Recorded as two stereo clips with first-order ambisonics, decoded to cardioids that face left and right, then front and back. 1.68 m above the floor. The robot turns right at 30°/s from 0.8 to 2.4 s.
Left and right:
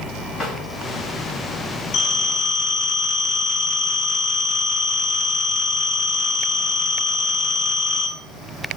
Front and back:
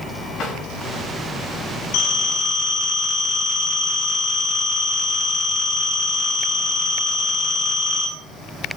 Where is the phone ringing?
30° left, 4.5 m; by 8.1 s 45° left, 4.5 m.